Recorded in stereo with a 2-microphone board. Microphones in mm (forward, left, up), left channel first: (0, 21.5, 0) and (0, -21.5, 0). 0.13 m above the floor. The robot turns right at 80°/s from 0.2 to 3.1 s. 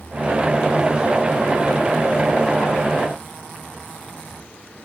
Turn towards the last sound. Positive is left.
No sound to turn to.